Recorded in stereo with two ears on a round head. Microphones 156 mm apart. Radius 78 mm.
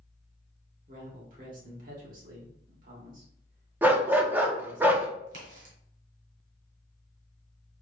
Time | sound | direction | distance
0.9 | a man speaking | 50° right (ahead or behind) | 1.8 m
3.8 | a dog barking | 10° right (ahead or behind) | 0.6 m
5.3 | a crack | 60° right (ahead or behind) | 2.5 m